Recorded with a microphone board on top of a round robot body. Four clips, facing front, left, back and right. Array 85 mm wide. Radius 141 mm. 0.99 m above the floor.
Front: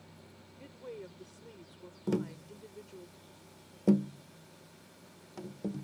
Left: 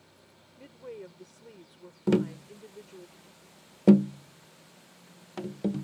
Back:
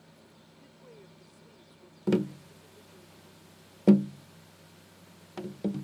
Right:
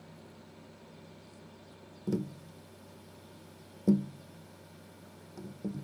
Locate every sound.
0.6 s a woman speaking: 60° left
2.1 s tapping: 125° left